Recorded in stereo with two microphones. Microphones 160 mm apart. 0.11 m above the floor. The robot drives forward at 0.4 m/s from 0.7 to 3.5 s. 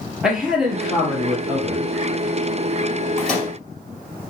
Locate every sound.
0.2 s a man speaking: centre (ahead or behind), 1.9 m; by 1.9 s 5° right (ahead or behind), 1.6 m
3.2 s a microwave: centre (ahead or behind), 2.5 m